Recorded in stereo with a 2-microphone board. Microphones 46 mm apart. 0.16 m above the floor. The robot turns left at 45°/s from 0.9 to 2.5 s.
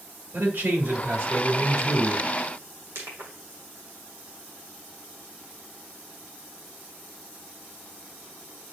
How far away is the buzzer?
No buzzer in this recording.